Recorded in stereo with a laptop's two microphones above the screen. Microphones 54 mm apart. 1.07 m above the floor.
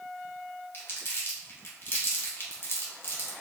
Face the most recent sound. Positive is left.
turn(degrees=45)  # may be behind; listen again after turning